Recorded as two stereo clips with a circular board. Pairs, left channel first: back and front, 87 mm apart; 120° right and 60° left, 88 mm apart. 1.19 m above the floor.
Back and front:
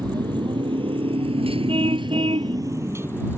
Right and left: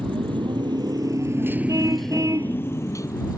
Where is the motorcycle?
35° left; by 3.4 s 70° right.